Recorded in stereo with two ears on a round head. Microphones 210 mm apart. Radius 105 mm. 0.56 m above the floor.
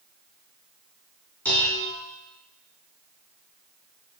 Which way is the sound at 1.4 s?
5° left (ahead or behind).